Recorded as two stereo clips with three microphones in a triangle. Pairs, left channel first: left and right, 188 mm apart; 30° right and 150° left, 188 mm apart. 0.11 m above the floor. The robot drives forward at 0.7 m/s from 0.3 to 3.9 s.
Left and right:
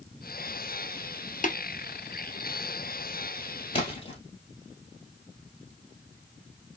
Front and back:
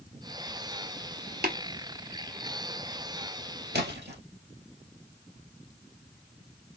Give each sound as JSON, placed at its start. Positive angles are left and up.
{"t": 1.4, "sound": "tapping", "azimuth_deg": 125, "distance_m": 1.1}
{"t": 3.7, "sound": "a splash", "azimuth_deg": 145, "distance_m": 1.9}